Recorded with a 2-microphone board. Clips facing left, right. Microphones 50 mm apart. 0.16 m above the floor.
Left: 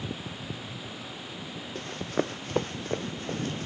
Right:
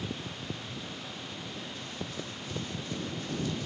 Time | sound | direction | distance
1.8 | running footsteps | 55° left (ahead or behind) | ?